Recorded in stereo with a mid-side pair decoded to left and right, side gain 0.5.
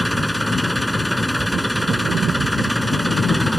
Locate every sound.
0.0 s an engine running: 5° left